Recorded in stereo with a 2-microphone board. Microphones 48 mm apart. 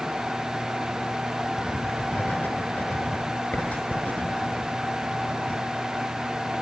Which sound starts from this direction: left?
Writing, at 1.6 s.